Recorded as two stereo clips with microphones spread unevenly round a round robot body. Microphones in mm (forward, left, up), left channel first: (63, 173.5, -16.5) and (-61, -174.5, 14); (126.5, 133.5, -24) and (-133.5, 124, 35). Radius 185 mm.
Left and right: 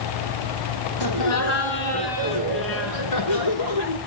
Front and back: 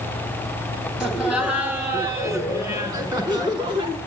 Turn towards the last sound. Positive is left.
turn(degrees=110)